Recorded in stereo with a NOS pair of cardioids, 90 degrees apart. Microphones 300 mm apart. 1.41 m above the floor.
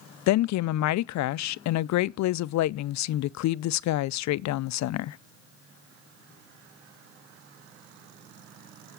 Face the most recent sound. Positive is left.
turn(degrees=65)